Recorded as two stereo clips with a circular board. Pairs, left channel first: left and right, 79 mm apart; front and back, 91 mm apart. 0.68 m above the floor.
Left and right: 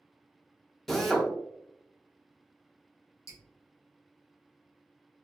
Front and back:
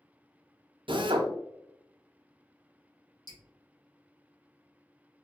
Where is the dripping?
40° left, 1.3 m.